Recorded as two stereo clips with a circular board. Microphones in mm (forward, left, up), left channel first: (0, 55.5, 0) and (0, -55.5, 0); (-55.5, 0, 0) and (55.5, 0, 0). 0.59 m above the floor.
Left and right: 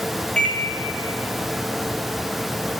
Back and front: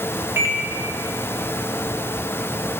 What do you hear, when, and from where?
0.4 s a microwave: 25° left, 0.7 m